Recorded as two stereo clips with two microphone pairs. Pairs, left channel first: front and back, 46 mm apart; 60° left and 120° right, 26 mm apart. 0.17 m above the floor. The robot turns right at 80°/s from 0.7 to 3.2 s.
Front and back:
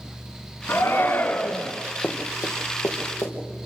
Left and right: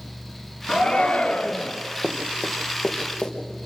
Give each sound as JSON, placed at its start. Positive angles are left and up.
{"t": 0.7, "sound": "a shout", "azimuth_deg": 10, "distance_m": 2.5}
{"t": 2.0, "sound": "running footsteps", "azimuth_deg": -60, "distance_m": 4.0}